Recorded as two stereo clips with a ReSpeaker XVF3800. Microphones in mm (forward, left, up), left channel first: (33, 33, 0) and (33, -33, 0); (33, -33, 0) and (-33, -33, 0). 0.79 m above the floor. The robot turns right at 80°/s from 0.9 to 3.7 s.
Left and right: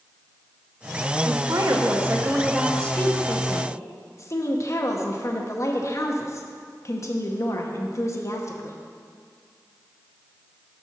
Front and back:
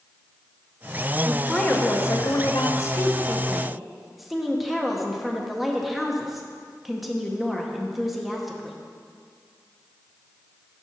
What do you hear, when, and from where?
1.2 s a woman speaking: 105° right, 0.8 m; by 8.8 s 90° left, 0.8 m